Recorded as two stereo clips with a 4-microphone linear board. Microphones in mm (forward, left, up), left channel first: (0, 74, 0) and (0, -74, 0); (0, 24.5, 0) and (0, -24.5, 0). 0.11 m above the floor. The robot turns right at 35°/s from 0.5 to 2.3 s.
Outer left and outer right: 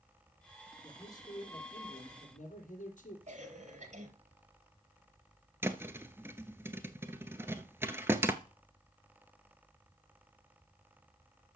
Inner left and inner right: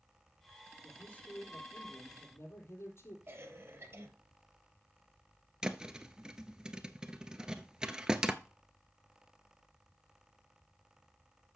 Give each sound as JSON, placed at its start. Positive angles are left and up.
{"t": 0.8, "sound": "a man speaking", "azimuth_deg": 20, "distance_m": 3.0}
{"t": 3.3, "sound": "a cough", "side_deg": -50, "distance_m": 2.5}
{"t": 5.6, "sound": "a thud", "side_deg": -15, "distance_m": 0.8}